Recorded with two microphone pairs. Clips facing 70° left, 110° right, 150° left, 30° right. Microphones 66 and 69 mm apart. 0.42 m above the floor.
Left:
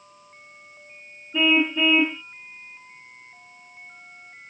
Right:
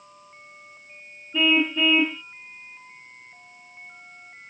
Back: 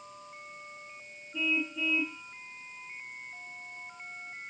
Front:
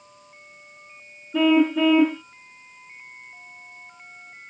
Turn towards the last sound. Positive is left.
turn(degrees=-15)